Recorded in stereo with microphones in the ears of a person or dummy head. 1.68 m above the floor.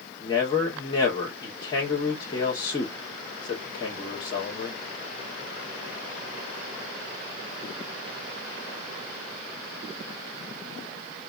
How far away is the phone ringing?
I don't hear a phone ringing.